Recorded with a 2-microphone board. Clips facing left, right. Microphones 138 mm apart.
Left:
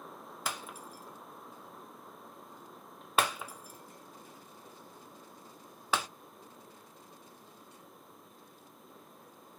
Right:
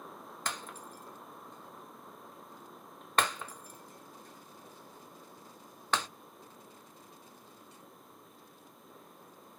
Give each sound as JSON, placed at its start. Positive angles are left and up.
{"t": 0.5, "sound": "breaking glass", "side_deg": 5, "distance_m": 0.6}